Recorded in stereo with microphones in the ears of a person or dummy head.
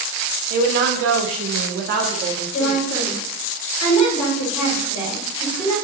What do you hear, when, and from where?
0.5 s a woman speaking: 50° right (ahead or behind), 1.0 m; by 2.8 s 30° right (ahead or behind), 1.2 m
2.5 s a woman speaking: 80° left, 2.5 m